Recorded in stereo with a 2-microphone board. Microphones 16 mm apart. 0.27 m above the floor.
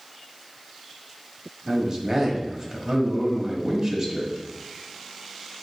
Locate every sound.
1.7 s a man speaking: 35° right (ahead or behind), 1.2 m